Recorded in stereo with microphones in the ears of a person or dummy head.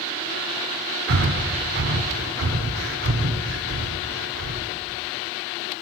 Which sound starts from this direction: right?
Breathing, at 1.1 s.